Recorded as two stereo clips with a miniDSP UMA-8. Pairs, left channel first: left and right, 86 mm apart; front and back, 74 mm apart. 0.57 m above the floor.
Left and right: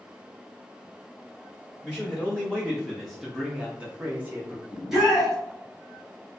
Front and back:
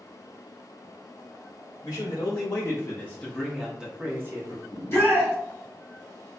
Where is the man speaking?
15° left, 1.1 m; by 4.6 s 150° right, 0.9 m.